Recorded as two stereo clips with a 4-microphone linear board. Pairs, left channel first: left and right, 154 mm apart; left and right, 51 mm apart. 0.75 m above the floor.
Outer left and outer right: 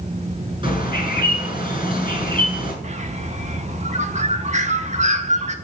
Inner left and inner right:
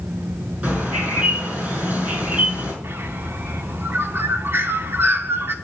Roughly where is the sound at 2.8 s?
Right.